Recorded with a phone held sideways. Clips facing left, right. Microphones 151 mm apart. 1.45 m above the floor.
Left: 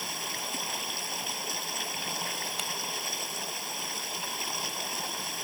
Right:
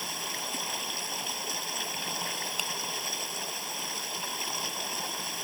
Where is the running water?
Centre (ahead or behind).